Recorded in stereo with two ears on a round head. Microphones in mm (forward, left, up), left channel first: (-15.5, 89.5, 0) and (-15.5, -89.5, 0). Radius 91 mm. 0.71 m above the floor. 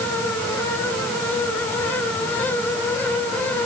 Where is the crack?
I don't hear a crack.